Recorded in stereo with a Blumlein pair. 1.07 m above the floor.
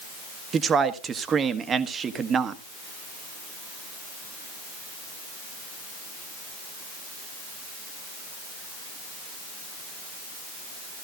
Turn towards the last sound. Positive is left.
turn(degrees=-20)